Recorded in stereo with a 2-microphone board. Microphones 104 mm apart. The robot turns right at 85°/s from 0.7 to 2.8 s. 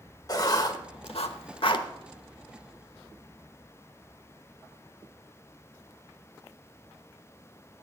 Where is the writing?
35° left (ahead or behind), 0.9 m; by 1.9 s 40° left (ahead or behind), 0.9 m.